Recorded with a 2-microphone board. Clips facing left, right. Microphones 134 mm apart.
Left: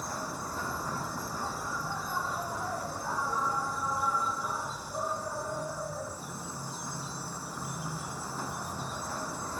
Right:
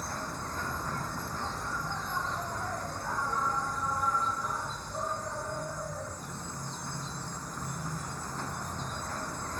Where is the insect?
10° left (ahead or behind).